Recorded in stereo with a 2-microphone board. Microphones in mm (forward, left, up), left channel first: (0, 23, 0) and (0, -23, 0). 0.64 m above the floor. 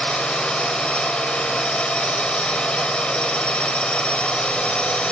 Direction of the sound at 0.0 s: 25° left (ahead or behind).